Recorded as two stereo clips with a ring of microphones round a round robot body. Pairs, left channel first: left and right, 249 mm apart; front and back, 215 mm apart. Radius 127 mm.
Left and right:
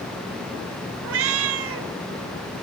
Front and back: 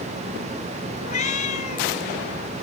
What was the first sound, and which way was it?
A cat meowing, 60° right.